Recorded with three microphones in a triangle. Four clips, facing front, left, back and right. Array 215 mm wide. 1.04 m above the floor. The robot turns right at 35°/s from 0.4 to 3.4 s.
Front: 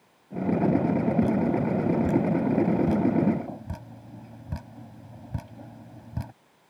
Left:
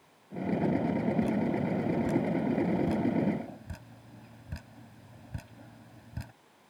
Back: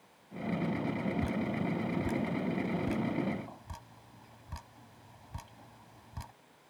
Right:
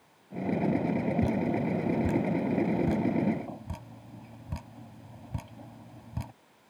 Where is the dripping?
95° right; by 6.3 s 15° right.